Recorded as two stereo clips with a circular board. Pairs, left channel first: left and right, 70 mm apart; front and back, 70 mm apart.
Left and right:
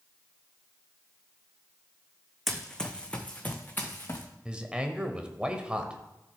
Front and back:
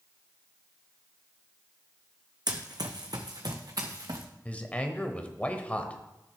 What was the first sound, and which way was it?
Running footsteps, 175° left.